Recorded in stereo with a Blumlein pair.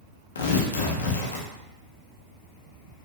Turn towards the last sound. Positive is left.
turn(degrees=65)